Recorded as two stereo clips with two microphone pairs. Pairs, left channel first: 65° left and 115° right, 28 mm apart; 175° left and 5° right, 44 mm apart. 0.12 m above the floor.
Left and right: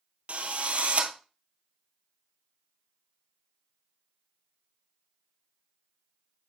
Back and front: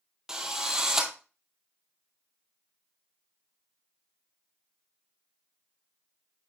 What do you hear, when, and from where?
0.3 s a drill: 80° right, 1.4 m